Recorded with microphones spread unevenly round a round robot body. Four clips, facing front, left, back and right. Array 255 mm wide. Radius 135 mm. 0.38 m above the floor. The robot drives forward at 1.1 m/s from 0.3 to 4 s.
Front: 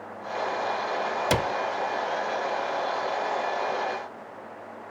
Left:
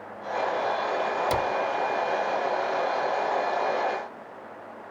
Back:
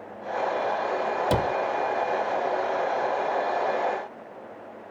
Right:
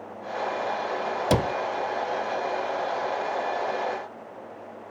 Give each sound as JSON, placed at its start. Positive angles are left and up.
{"t": 1.3, "sound": "a cupboard door", "azimuth_deg": -85}